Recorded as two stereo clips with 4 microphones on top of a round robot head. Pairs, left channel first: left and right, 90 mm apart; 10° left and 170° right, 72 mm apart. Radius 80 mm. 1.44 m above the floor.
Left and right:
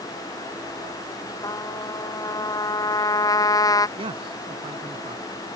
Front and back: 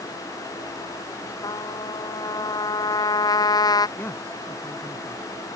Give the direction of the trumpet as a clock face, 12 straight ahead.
11 o'clock.